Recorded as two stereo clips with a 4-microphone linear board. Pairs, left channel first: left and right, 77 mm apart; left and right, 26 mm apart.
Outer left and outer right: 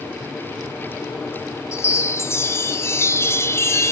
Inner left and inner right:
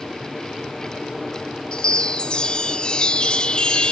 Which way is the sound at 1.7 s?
35° left (ahead or behind).